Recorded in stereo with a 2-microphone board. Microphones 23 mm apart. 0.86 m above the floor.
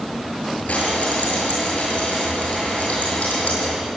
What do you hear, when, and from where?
0.7 s frying: 70° left (ahead or behind), 8 m